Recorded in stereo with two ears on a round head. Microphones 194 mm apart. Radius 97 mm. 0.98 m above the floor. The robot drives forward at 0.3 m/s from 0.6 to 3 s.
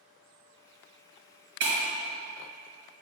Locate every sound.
1.6 s breaking glass: 55° right (ahead or behind), 1.8 m